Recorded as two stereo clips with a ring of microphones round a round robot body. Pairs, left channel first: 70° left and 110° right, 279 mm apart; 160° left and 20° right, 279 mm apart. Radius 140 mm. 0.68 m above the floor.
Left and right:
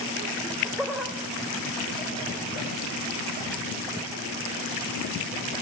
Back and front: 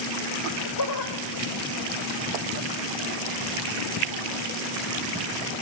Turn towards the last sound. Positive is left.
turn(degrees=160)